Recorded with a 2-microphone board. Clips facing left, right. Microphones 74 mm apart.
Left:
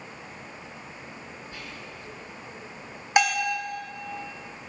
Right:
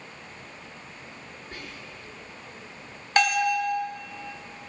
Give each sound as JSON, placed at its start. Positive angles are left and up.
{"t": 1.5, "sound": "whispering", "side_deg": -55, "distance_m": 1.9}
{"t": 3.2, "sound": "a bell", "side_deg": 10, "distance_m": 1.5}